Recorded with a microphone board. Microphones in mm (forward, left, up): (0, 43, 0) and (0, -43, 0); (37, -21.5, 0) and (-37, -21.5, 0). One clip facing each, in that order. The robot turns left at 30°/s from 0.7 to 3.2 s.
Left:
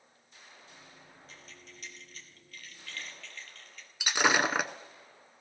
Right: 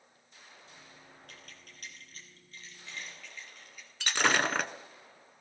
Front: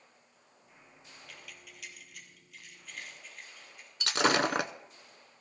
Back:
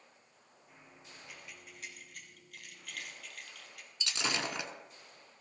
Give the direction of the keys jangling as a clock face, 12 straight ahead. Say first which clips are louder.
Left 1 dB, front 1 dB; 4 o'clock.